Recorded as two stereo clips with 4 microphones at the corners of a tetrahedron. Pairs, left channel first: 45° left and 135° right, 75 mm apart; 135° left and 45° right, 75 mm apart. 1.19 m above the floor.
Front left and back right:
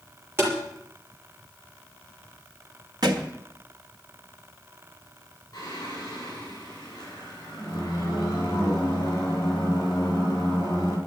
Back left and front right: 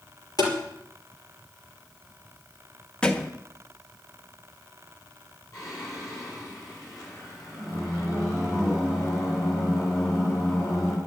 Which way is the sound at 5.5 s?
90° left.